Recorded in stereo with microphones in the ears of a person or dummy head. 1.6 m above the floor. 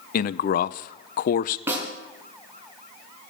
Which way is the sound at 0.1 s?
40° left (ahead or behind).